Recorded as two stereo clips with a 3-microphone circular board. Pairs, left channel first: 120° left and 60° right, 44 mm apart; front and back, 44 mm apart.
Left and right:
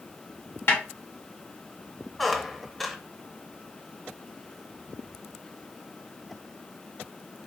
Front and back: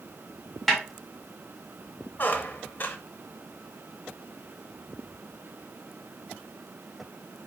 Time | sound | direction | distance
0.7 | a snare drum | 90° left | 1.8 m
2.2 | a squeak | 30° left | 0.6 m